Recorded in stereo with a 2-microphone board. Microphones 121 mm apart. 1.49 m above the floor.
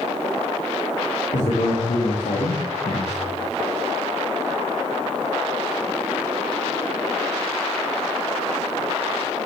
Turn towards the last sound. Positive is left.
turn(degrees=65)  # may be behind; listen again after turning